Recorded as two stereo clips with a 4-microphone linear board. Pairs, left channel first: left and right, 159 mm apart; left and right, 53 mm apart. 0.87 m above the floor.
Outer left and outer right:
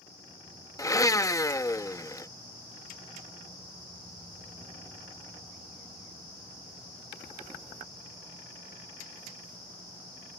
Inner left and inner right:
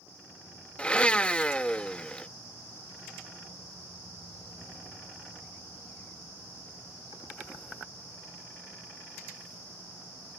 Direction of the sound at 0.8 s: 20° left (ahead or behind).